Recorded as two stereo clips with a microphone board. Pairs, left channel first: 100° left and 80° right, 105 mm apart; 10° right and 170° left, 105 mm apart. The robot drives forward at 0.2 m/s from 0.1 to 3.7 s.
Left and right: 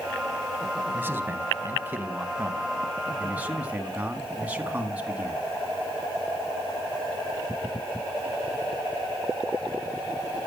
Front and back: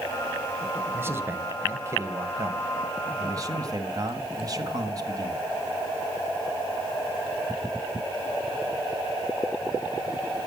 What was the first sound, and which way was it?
A man speaking, 135° right.